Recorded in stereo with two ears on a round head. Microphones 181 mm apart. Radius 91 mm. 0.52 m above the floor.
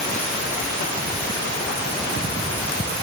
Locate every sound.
Only background noise.